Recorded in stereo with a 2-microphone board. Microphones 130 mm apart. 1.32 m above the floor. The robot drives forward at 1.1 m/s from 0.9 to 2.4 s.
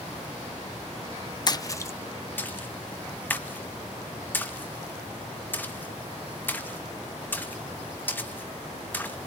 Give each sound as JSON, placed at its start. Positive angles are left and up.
{"t": 1.5, "sound": "a splash", "side_deg": 35, "distance_m": 0.8}